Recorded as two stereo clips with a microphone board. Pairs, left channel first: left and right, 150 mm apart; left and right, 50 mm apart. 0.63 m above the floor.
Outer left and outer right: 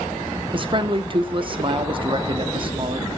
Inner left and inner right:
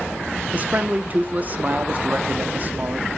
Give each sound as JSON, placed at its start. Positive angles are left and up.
{"t": 0.5, "sound": "a man speaking", "side_deg": -35, "distance_m": 1.1}